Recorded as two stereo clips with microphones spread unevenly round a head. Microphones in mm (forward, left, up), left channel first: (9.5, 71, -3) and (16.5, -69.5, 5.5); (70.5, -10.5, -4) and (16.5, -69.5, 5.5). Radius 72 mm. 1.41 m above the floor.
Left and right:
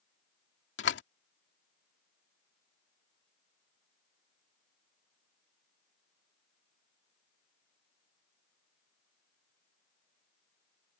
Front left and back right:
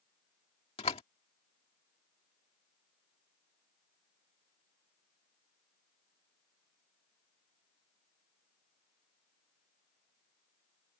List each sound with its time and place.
0.8 s a door slam: 95° left